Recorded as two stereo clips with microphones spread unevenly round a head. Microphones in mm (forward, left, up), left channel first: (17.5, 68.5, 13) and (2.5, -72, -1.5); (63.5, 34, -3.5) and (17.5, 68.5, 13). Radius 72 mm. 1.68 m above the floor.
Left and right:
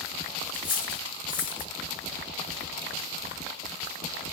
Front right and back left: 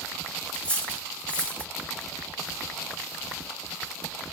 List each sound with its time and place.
0.5 s cutlery clinking: 40° left, 1.5 m